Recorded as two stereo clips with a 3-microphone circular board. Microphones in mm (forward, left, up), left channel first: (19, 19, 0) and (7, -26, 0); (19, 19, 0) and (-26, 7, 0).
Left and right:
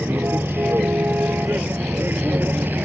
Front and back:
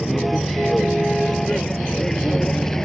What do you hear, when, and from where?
0.0 s a vehicle: 70° right; by 2.9 s 60° right